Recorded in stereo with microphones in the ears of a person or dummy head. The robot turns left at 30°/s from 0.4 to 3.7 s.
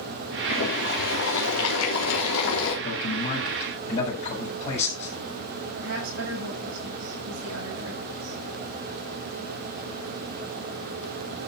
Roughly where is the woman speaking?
Right.